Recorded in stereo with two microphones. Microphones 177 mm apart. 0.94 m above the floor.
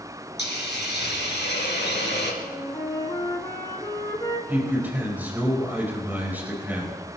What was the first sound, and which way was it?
A hiss, 80° left.